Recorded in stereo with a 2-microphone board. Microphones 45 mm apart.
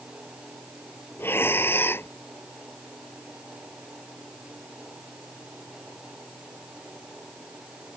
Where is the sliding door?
No sliding door in this recording.